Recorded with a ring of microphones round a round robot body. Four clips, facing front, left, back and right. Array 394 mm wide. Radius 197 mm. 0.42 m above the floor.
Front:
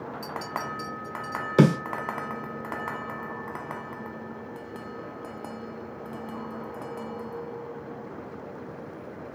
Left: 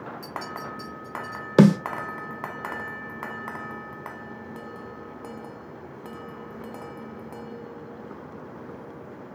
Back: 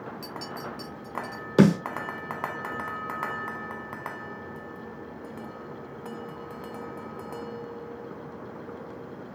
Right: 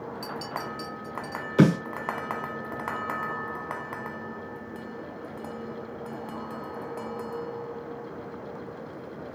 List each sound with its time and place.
0.2 s a clink: 130° right, 1.7 m
1.6 s a snare drum: 85° left, 1.5 m